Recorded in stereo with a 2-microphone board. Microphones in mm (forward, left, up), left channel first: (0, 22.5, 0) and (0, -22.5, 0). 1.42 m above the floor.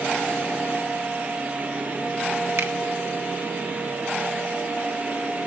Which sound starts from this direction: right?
A finger snap, at 2.6 s.